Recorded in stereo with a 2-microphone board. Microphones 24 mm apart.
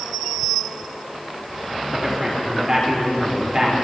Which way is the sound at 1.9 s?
25° right (ahead or behind).